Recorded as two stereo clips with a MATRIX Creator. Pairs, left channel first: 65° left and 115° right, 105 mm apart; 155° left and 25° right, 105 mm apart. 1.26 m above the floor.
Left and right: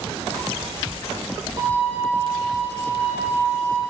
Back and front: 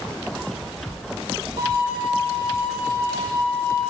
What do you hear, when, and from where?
1.6 s a violin: 55° right, 2.5 m